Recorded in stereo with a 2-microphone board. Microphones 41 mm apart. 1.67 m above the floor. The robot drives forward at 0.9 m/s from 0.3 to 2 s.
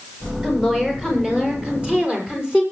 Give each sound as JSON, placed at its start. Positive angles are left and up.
{"t": 0.4, "sound": "a woman speaking", "side_deg": -15, "distance_m": 7.5}